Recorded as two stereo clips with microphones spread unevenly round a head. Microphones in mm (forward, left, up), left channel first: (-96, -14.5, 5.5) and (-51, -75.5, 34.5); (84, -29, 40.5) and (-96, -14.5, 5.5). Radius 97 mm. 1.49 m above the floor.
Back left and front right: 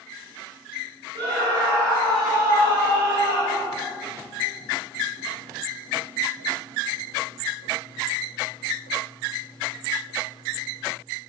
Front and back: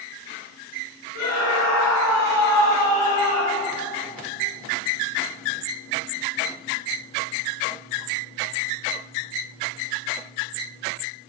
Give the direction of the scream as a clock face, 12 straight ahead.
12 o'clock.